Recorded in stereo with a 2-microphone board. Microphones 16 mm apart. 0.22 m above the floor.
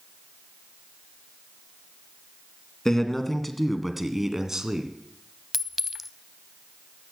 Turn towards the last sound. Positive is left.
turn(degrees=-10)  # may be behind; listen again after turning